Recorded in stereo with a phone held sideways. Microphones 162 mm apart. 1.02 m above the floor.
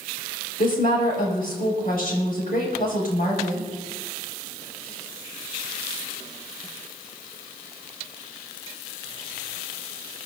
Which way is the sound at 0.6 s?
60° left (ahead or behind).